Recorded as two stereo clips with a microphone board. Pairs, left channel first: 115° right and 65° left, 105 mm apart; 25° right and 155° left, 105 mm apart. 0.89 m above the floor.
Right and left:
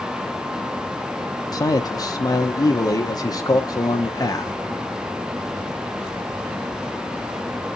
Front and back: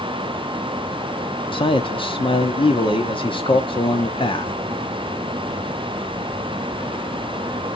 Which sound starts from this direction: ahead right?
A man speaking, at 1.5 s.